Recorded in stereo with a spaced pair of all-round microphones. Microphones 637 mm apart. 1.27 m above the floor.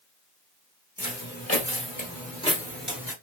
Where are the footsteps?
30° left (ahead or behind), 1.8 m; by 3.1 s 5° right (ahead or behind), 1.2 m.